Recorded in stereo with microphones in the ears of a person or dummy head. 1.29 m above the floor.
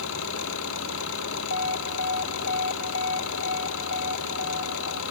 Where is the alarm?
65° left (ahead or behind).